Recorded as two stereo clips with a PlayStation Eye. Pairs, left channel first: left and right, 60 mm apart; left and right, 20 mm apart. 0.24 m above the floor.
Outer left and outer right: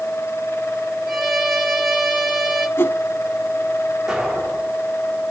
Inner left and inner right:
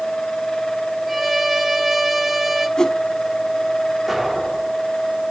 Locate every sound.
1.1 s a violin: 5° right (ahead or behind), 4.5 m
2.8 s a whoosh: 40° left (ahead or behind), 1.3 m
4.1 s an explosion: 5° right (ahead or behind), 6.5 m